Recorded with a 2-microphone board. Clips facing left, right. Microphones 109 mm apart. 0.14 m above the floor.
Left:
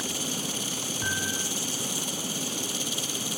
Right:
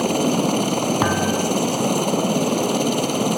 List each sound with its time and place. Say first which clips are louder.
0.0 s a helicopter: right 16 dB; 60° right (ahead or behind)
1.0 s a thud: right 14 dB; 85° right